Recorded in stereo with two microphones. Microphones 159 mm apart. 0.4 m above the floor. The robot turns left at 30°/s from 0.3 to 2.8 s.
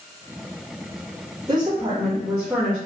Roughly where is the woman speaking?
Behind right.